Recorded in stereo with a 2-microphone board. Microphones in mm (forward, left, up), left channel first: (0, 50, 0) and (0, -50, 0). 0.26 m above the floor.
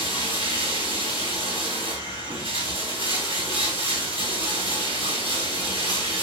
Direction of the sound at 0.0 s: 70° right (ahead or behind).